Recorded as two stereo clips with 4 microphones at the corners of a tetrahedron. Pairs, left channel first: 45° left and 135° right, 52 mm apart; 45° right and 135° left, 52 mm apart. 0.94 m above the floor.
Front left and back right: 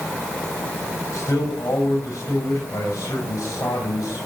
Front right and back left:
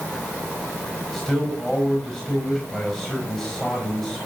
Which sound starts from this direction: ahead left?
A man speaking, at 1.1 s.